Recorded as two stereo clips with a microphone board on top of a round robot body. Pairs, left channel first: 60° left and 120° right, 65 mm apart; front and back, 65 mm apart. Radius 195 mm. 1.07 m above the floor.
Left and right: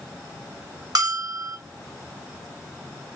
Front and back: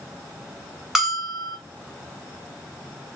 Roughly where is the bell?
Right.